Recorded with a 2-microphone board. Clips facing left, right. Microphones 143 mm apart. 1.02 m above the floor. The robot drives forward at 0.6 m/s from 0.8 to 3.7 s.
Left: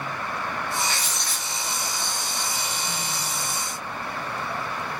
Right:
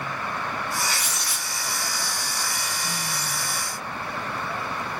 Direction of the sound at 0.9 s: 10° right (ahead or behind).